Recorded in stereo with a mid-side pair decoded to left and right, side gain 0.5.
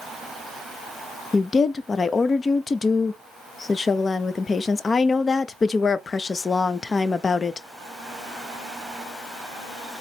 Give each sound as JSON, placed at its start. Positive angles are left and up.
{"t": 1.3, "sound": "a woman speaking", "azimuth_deg": 30, "distance_m": 0.6}